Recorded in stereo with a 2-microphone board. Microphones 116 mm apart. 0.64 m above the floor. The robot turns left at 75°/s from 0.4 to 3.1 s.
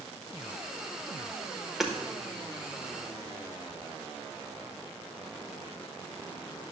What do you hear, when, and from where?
1.8 s hammering: 5° right (ahead or behind), 1.3 m; by 1.9 s 5° left (ahead or behind), 1.3 m